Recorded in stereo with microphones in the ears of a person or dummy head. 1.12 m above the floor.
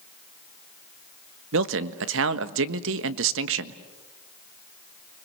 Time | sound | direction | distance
1.5 | a man speaking | 70° right (ahead or behind) | 1.2 m